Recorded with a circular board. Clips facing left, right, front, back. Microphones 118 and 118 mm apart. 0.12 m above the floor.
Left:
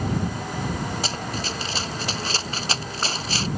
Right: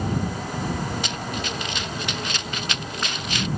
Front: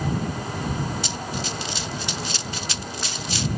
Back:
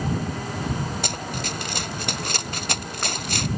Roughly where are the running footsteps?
Behind left.